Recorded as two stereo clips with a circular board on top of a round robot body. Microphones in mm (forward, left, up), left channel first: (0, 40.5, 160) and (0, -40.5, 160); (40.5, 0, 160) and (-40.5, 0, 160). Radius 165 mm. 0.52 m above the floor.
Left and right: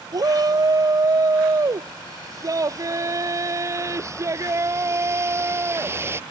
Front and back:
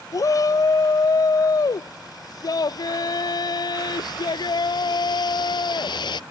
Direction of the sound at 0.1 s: 45° right.